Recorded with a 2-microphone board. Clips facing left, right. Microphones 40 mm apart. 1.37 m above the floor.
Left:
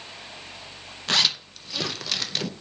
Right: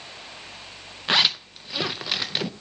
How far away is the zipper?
About 0.6 m.